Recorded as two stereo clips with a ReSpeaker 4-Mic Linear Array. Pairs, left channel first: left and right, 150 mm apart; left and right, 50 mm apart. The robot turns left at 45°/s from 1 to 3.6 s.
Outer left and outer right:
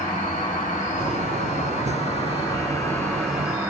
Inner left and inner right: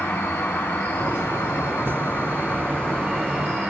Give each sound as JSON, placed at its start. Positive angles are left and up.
{"t": 0.0, "sound": "an insect", "azimuth_deg": 105, "distance_m": 1.3}